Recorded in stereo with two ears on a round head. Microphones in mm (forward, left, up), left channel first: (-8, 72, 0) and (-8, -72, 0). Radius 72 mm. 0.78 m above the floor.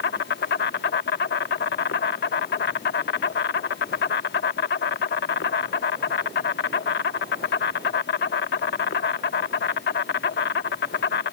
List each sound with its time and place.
0.0 s an insect: 70° left (ahead or behind)